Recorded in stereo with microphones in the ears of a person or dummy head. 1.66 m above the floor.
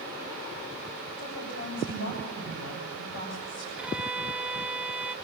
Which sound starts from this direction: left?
A woman speaking, at 1.2 s.